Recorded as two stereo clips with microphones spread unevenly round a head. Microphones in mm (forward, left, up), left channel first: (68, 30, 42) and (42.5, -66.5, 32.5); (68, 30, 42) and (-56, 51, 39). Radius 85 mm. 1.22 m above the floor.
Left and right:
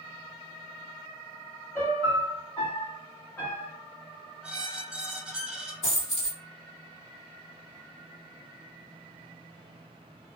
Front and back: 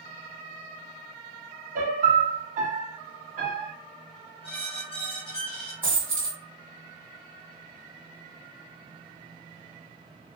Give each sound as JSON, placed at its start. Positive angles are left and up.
{"t": 1.8, "sound": "a piano", "azimuth_deg": 150, "distance_m": 0.7}
{"t": 4.4, "sound": "a squeak", "azimuth_deg": -20, "distance_m": 0.6}
{"t": 5.8, "sound": "a dropped coin", "azimuth_deg": 95, "distance_m": 1.9}